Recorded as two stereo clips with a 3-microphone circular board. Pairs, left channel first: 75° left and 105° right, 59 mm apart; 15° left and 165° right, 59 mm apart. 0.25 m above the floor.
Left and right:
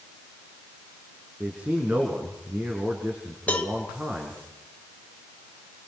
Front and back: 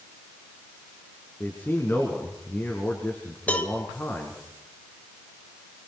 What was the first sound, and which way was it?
A man speaking, 40° right.